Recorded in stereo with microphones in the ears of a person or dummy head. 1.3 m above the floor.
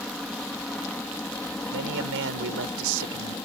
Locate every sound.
0.0 s a helicopter: 5° right (ahead or behind); by 3.5 s 5° left (ahead or behind)
1.7 s a man speaking: 70° right (ahead or behind)